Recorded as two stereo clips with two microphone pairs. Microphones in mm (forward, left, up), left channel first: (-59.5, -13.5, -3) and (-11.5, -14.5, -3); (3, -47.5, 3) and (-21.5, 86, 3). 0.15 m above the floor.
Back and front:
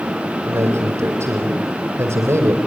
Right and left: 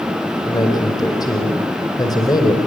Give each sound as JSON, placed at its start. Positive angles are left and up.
{"t": 0.4, "sound": "a man speaking", "azimuth_deg": -20, "distance_m": 5.5}